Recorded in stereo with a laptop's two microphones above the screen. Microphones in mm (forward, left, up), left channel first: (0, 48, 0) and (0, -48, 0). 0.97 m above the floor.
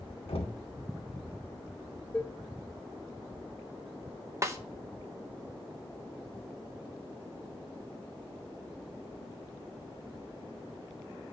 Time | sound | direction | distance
0.3 | knocking | 80° left | 2.0 m
2.1 | dishes clattering | 10° left (ahead or behind) | 0.5 m
4.4 | a snare drum | 30° right (ahead or behind) | 0.8 m